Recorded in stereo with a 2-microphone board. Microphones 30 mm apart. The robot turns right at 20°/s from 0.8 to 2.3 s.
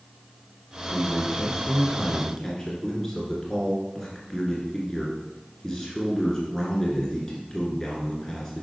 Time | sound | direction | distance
0.9 | a man speaking | 30° left (ahead or behind) | 1.9 m